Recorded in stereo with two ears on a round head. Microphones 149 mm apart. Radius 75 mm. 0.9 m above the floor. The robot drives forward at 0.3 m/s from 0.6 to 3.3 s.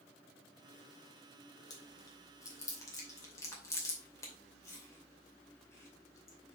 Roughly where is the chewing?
Left.